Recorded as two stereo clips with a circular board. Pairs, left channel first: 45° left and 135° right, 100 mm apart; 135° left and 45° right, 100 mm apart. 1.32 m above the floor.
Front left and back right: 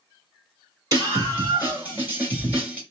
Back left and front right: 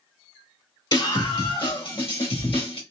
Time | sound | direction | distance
0.9 | a scream | 175° left | 2.5 m